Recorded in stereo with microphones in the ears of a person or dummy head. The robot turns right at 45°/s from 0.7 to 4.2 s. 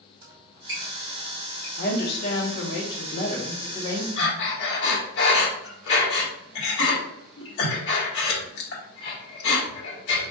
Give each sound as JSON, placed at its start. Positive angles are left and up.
{"t": 0.2, "sound": "a squeak", "side_deg": -30, "distance_m": 2.0}
{"t": 1.8, "sound": "a woman speaking", "azimuth_deg": 60, "distance_m": 1.0}
{"t": 4.2, "sound": "breathing", "side_deg": 70, "distance_m": 1.4}